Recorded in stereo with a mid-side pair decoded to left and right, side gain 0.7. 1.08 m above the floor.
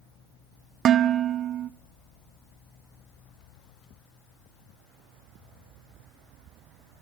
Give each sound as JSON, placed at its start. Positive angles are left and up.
{"t": 0.8, "sound": "dishes clattering", "azimuth_deg": -40, "distance_m": 0.8}